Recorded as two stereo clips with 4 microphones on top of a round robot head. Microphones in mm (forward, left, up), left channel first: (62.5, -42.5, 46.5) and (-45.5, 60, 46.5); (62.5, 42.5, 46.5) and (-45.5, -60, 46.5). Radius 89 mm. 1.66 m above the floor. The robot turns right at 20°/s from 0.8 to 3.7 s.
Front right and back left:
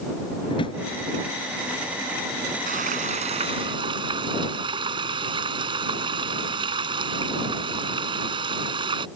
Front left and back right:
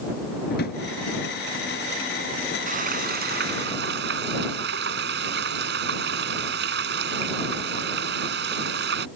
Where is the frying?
Straight behind; by 9.1 s 160° right.